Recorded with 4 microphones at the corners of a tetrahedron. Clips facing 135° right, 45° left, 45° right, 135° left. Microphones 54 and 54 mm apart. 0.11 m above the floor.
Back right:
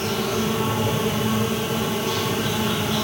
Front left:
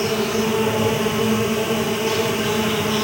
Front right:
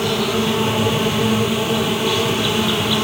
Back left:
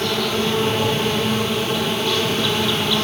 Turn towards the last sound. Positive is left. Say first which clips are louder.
# front left 3 dB, front right 2 dB
turn(degrees=35)